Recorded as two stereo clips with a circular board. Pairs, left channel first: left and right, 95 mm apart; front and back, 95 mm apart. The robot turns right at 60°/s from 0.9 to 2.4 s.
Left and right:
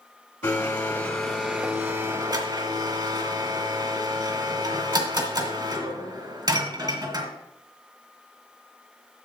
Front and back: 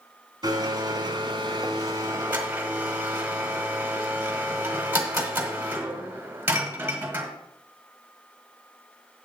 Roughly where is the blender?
Behind left.